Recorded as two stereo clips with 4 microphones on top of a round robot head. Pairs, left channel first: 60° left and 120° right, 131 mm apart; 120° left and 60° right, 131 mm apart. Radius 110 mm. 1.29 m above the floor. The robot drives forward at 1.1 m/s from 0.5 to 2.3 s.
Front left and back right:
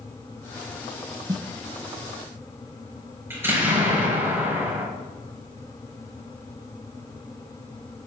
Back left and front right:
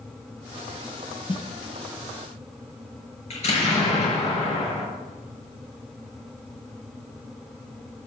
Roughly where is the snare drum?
Behind.